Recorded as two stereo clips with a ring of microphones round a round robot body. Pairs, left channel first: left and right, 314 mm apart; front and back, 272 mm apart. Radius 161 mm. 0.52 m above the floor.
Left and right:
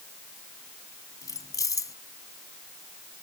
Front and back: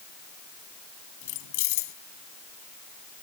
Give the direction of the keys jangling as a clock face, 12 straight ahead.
12 o'clock.